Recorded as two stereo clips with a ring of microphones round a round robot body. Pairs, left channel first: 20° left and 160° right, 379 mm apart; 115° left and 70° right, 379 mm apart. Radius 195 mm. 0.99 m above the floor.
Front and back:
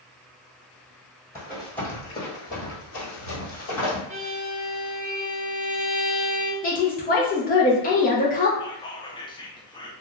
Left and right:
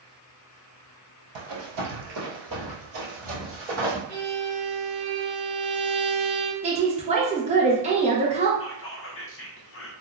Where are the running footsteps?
75° right, 1.4 m; by 4.0 s 15° left, 1.5 m.